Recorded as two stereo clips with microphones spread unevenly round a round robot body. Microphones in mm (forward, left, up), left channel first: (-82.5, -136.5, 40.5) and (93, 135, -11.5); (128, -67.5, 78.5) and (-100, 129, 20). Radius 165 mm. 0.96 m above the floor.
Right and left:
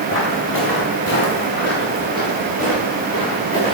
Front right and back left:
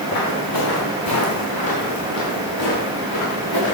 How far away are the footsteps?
About 4.5 m.